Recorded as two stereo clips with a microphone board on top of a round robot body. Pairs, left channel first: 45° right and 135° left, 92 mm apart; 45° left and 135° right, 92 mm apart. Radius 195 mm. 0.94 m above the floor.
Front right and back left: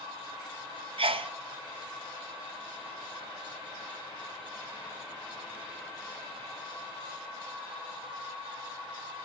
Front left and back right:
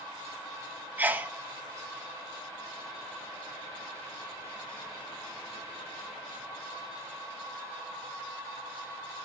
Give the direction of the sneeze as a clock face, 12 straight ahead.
7 o'clock.